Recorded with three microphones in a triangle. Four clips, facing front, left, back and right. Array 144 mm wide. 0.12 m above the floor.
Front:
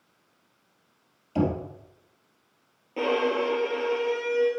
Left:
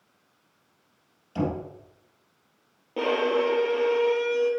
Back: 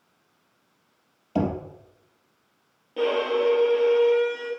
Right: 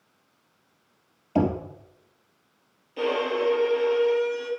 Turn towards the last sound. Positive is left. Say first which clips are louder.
# left 1 dB, back 2 dB
turn(degrees=80)